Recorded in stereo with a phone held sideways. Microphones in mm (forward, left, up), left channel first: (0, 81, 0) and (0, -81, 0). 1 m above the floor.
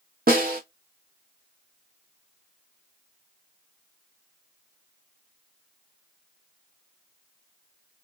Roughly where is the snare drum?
Right.